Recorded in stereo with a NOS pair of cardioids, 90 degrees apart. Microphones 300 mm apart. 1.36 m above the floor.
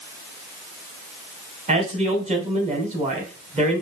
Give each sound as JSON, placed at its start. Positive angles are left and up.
{"t": 1.7, "sound": "a man speaking", "azimuth_deg": -25, "distance_m": 1.5}